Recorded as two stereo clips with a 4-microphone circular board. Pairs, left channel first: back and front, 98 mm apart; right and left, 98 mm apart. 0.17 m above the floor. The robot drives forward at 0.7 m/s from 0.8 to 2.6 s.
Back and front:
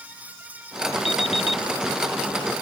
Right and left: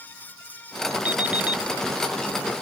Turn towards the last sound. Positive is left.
turn(degrees=170)